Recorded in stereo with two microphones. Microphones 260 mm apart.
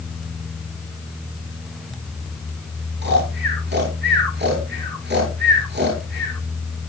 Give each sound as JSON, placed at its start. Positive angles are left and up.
{"t": 3.0, "sound": "snoring", "side_deg": -40, "distance_m": 9.5}